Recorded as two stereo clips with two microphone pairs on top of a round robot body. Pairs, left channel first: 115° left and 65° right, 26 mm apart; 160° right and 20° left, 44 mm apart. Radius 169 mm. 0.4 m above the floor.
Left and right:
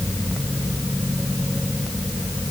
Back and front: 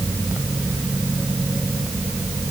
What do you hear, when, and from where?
Only background noise.